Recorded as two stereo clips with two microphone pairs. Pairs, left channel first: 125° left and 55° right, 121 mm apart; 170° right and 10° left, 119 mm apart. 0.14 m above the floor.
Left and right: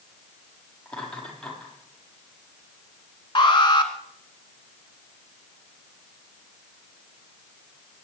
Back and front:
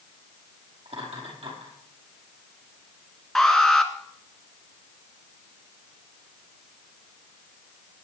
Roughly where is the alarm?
Left.